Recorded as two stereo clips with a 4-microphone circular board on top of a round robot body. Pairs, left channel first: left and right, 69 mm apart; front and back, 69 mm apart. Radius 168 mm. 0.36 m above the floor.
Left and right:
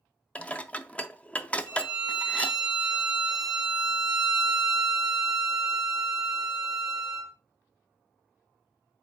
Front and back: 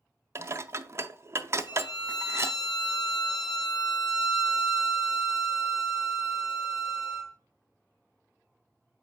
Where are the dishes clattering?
155° left, 0.6 m.